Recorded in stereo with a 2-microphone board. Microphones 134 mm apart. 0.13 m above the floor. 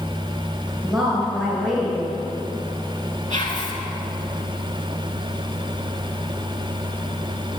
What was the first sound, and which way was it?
A woman speaking, centre (ahead or behind).